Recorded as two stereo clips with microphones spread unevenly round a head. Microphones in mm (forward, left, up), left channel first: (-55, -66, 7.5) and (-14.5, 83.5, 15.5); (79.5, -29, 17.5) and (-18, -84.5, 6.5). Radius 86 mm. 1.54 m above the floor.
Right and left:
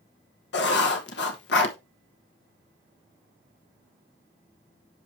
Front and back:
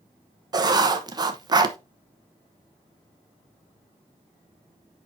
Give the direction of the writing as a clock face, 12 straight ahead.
3 o'clock.